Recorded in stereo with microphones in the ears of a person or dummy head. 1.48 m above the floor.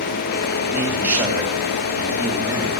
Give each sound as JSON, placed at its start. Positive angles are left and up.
{"t": 0.7, "sound": "a man speaking", "side_deg": -20, "distance_m": 2.5}